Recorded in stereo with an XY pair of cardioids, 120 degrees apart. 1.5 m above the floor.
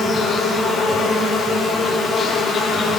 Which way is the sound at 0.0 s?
30° left.